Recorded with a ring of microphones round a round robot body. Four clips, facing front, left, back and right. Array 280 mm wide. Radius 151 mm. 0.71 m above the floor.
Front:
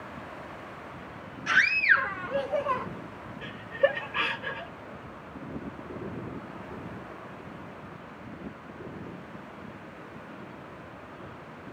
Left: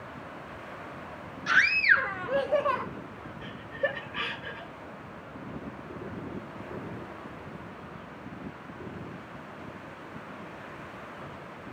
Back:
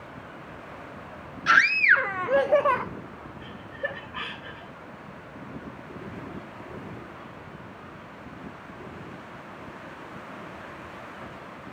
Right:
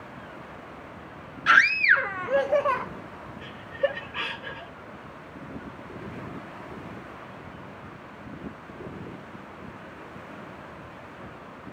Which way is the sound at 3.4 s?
10° right.